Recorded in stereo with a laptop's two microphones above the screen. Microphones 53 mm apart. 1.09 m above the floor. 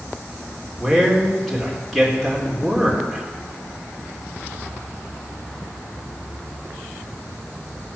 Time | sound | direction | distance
0.8 | a man speaking | 5° left (ahead or behind) | 4 m